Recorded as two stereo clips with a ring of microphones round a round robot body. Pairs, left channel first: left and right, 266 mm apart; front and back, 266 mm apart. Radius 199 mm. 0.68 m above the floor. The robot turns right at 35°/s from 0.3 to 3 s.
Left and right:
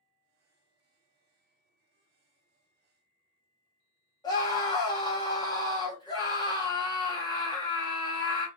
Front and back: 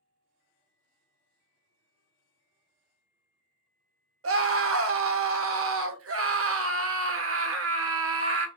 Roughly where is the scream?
Behind.